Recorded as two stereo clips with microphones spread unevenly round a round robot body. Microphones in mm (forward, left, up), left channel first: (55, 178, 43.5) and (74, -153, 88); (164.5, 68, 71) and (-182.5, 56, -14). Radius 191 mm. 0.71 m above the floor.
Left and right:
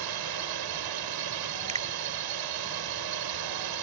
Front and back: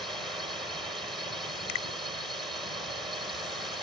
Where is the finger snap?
15° right.